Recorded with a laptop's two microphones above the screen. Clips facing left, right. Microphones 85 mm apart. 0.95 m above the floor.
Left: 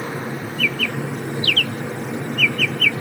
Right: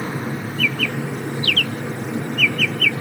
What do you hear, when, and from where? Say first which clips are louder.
0.0 s a machine running: right 1 dB; 10° left (ahead or behind), 4.5 m